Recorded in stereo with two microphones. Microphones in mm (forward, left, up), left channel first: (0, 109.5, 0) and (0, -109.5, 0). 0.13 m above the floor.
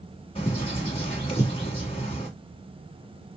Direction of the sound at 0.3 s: 25° left (ahead or behind).